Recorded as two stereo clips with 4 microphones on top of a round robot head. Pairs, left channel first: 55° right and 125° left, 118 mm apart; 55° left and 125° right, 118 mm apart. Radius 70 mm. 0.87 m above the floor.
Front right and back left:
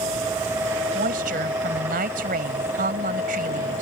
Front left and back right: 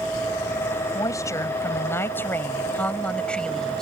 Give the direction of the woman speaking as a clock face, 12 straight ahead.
8 o'clock.